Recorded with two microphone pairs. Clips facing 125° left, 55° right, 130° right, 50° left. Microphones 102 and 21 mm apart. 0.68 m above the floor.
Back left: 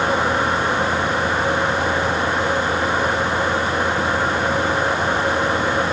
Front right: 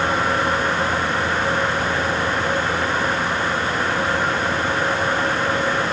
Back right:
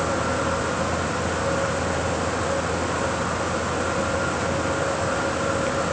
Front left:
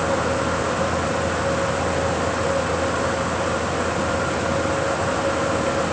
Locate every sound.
Only background noise.